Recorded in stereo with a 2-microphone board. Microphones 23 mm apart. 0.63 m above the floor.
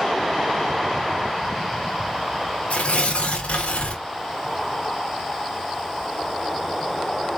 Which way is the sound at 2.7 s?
65° left (ahead or behind).